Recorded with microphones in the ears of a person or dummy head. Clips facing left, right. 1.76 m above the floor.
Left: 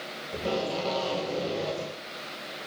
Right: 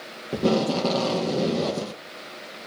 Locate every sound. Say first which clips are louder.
0.3 s tape being pulled: right 8 dB; 70° right (ahead or behind), 1.9 m